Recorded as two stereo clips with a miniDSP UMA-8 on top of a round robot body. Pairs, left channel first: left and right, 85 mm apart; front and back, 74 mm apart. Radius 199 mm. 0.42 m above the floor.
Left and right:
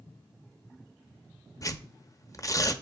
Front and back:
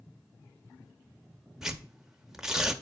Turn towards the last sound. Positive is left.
turn(degrees=100)